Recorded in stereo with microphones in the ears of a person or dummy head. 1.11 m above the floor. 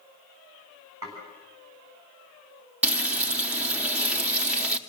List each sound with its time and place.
1.0 s dishes clattering: 10° right (ahead or behind), 6.5 m
2.8 s frying: 10° right (ahead or behind), 0.8 m